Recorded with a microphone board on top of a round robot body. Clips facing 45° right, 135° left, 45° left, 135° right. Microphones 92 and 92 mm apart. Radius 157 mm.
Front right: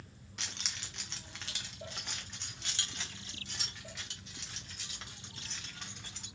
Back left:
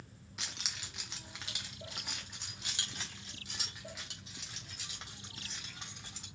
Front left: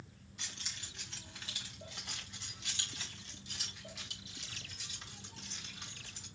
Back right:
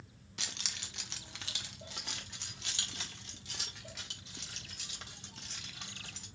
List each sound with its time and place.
0.4 s keys jangling: 140° right, 0.6 m; by 6.2 s 145° right, 3.5 m